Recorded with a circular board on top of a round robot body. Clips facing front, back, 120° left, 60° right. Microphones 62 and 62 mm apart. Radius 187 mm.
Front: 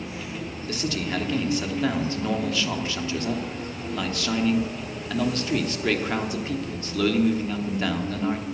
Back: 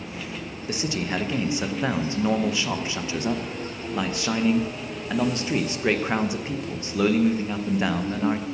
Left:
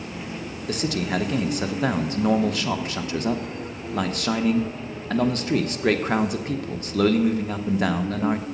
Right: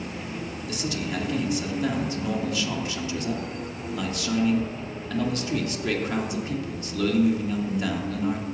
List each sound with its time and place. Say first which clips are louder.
0.7 s a man speaking: back 1 dB, left 6 dB; 115° left, 1.2 m